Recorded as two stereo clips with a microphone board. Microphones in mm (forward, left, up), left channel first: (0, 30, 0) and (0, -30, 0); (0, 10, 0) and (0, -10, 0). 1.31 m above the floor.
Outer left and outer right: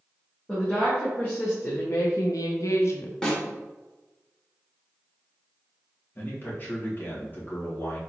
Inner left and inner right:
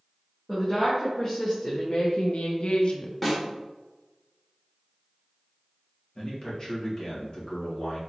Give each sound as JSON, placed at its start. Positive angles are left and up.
{"t": 0.5, "sound": "a woman speaking", "side_deg": 15, "distance_m": 1.5}
{"t": 3.2, "sound": "a snare drum", "side_deg": 10, "distance_m": 1.3}
{"t": 6.2, "sound": "a man speaking", "side_deg": 35, "distance_m": 1.5}